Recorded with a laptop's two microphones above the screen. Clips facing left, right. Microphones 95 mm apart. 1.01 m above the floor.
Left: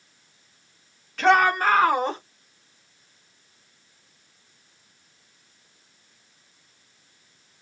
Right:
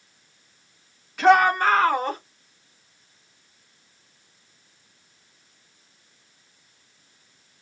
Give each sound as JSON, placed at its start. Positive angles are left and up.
{"t": 1.2, "sound": "a shout", "side_deg": -10, "distance_m": 1.2}